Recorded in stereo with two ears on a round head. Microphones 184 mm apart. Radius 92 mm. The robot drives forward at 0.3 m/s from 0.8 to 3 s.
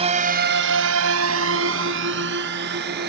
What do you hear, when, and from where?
0.0 s a drone: 30° right (ahead or behind); by 3.1 s 50° right (ahead or behind)